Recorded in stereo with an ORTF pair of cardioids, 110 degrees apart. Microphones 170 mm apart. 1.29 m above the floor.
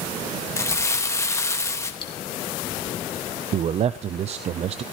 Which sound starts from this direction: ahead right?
A man speaking, at 3.5 s.